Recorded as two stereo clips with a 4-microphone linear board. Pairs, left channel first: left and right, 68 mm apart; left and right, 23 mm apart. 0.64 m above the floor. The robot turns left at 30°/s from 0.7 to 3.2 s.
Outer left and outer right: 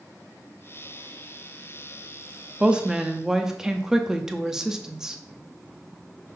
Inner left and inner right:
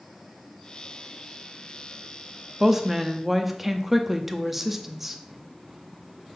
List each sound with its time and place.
2.6 s a woman speaking: 15° right (ahead or behind), 0.7 m; by 5.2 s 10° right (ahead or behind), 0.7 m